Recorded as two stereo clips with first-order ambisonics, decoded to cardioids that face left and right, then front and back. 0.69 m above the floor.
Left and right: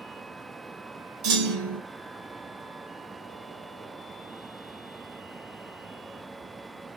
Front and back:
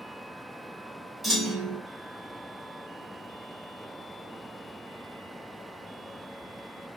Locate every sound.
1.2 s a clunk: 90° right, 2.5 m